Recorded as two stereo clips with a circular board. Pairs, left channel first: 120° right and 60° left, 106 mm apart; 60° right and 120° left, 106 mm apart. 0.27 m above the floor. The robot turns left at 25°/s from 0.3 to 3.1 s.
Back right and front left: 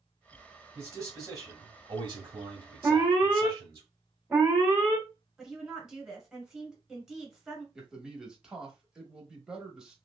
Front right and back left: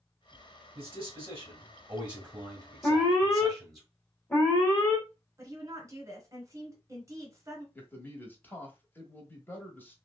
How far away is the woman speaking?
About 1.3 m.